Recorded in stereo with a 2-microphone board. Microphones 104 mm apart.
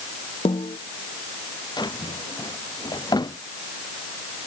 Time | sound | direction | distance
0.5 | a snare drum | 70° left (ahead or behind) | ?
1.8 | a drawer | 45° left (ahead or behind) | ?